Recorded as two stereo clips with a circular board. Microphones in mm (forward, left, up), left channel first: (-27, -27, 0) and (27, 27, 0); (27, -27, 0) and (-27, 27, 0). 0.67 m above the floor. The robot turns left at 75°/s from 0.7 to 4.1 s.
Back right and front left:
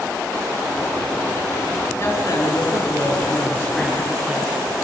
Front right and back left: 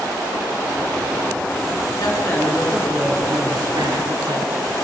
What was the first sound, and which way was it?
A woman speaking, 75° right.